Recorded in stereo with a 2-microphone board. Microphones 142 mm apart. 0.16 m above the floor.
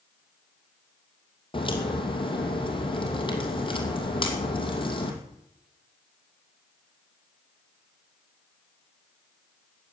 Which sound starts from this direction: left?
A crack, at 1.5 s.